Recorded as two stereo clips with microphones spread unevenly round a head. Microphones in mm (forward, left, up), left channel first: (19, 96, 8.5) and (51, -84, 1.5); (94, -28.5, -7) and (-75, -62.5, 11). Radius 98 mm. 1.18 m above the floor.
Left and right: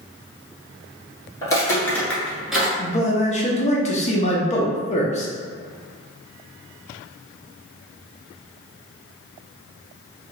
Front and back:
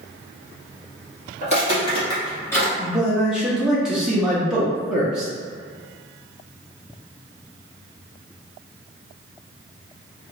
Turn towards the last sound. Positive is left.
turn(degrees=95)